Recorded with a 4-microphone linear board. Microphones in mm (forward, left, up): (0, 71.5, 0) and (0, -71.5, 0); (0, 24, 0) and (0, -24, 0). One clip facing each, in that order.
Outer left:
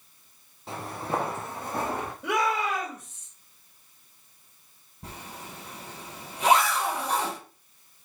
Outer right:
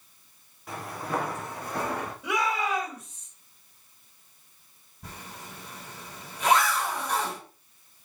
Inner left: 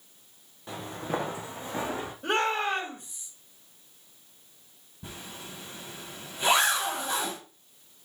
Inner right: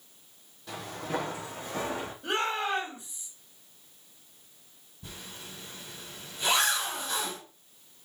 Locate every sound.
0.7 s footsteps: 30° left (ahead or behind), 2 m; by 2.1 s 25° left (ahead or behind), 3 m
2.2 s a shout: 55° left (ahead or behind), 4 m
5.0 s a zipper: 30° left (ahead or behind), 3.5 m